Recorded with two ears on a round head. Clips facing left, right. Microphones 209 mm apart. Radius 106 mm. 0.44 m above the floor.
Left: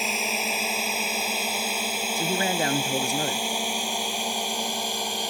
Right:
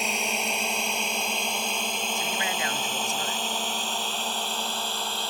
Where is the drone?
Centre (ahead or behind); by 5.3 s 15° left (ahead or behind).